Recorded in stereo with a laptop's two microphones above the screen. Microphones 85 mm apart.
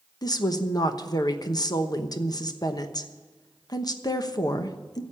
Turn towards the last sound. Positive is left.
turn(degrees=50)  # may be behind; listen again after turning